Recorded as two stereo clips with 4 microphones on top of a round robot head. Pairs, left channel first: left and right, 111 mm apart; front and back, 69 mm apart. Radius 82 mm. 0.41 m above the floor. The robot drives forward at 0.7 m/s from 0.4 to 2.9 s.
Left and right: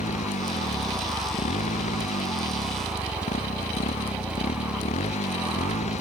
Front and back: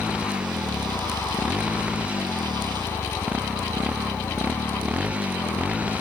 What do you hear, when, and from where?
0.0 s a motorcycle: 105° left